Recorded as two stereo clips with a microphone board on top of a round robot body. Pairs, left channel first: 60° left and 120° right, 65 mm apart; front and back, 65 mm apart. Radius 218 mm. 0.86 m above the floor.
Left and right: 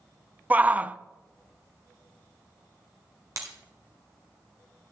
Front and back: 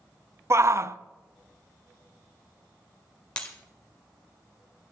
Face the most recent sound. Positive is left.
turn(degrees=-75)